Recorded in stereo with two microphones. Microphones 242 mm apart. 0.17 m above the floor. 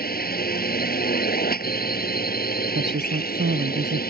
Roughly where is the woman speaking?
Right.